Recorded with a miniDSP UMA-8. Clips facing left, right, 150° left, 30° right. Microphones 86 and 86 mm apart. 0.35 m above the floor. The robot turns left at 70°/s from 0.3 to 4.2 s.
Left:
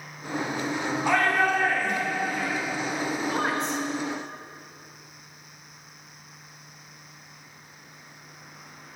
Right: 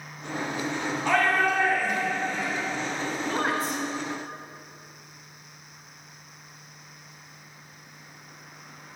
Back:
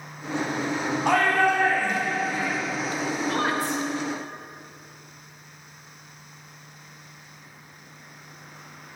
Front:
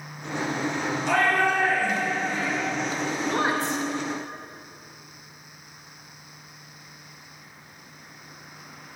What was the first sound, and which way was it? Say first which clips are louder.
A shout: even, back 2 dB; 170° left.